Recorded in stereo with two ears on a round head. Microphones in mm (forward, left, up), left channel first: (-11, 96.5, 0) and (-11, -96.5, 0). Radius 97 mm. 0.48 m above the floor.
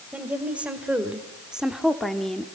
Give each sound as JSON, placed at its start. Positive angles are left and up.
{"t": 0.1, "sound": "a woman speaking", "side_deg": -5, "distance_m": 2.5}